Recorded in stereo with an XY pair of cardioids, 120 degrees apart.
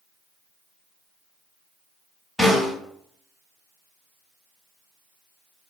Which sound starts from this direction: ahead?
A snare drum, at 2.4 s.